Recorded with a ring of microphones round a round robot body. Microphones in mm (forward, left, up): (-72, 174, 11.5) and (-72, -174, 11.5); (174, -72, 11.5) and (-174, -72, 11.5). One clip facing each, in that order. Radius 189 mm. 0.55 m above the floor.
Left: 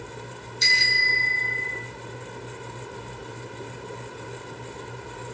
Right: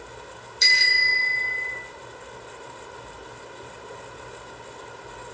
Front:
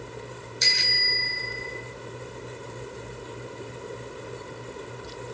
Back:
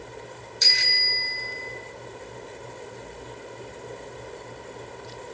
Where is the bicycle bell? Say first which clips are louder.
Left 1 dB, front 1 dB; 90° right, 6.5 m.